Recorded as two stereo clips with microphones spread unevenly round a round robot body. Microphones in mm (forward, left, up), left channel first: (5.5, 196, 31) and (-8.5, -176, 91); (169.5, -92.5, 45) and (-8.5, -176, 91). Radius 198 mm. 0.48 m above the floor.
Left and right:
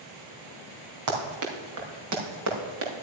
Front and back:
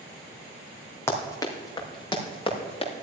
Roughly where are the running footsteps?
Ahead right.